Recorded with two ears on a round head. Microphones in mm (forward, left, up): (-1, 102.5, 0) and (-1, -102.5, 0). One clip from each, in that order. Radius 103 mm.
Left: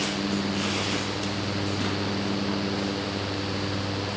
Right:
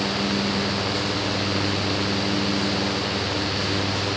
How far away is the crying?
I don't hear crying.